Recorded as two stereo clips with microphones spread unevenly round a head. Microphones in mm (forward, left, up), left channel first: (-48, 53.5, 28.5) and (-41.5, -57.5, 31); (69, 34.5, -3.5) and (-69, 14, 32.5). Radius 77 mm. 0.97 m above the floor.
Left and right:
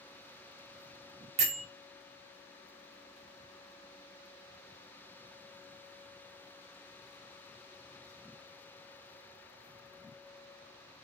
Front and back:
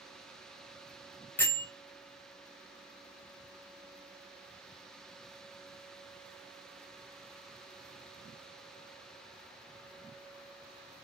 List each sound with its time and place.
1.4 s a bell: 65° right, 0.5 m